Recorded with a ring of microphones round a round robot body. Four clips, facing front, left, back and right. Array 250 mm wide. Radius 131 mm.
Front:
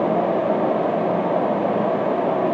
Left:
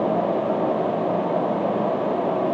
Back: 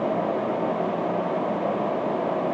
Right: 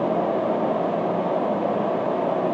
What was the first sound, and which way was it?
Only background noise.